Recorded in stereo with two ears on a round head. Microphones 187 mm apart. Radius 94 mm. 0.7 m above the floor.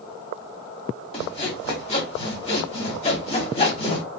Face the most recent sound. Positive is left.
turn(degrees=30)  # may be behind; listen again after turning